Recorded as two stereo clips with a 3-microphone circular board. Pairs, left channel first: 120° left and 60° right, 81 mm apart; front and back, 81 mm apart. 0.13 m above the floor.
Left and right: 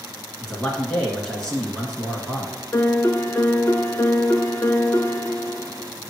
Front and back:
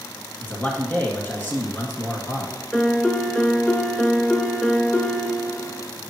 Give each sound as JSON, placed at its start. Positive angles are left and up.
{"t": 0.4, "sound": "a man speaking", "azimuth_deg": 45, "distance_m": 1.6}
{"t": 2.7, "sound": "a piano", "azimuth_deg": 75, "distance_m": 0.6}